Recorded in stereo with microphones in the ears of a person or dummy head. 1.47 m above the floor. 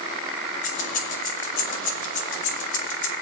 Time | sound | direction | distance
0.6 | keys jangling | 50° left (ahead or behind) | 4 m